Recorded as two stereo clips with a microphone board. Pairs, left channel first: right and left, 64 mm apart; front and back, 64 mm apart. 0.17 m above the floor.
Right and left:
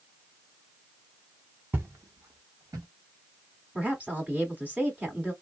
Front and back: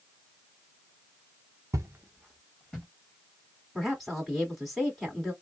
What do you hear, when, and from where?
1.7 s footsteps: 150° left, 0.7 m; by 2.9 s 75° left, 1.5 m
3.8 s a woman speaking: 90° left, 1.6 m